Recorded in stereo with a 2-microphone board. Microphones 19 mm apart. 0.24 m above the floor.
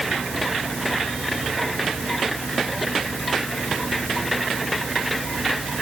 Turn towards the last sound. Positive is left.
No sound to turn to.